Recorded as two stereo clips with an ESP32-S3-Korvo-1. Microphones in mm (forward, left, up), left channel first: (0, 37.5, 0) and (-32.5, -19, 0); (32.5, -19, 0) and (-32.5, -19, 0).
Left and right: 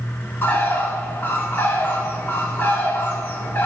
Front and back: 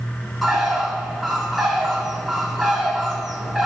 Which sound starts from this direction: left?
A bird, at 0.4 s.